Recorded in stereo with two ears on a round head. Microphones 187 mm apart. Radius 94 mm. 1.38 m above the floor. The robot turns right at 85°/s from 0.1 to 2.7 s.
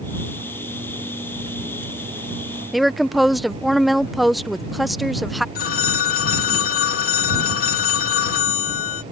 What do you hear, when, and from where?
2.7 s a woman speaking: centre (ahead or behind)
5.5 s a phone ringing: 45° left (ahead or behind)